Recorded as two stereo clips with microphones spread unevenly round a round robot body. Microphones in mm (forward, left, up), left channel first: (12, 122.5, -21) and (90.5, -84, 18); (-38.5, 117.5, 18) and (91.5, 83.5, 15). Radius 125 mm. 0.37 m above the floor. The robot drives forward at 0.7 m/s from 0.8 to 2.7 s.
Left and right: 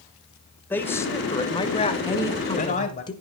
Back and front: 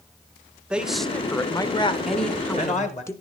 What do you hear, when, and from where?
0.7 s a man speaking: 60° left, 1.1 m; by 3.0 s 160° left, 1.5 m
2.0 s a woman speaking: 70° left, 1.5 m; by 3.1 s 115° left, 1.5 m